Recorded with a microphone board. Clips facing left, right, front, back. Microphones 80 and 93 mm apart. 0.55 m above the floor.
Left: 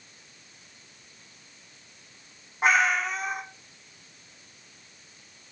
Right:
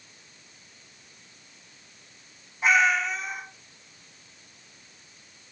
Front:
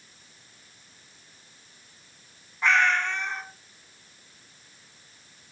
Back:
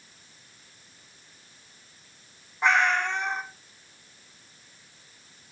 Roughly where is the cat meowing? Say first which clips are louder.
Right 1 dB, even; behind left.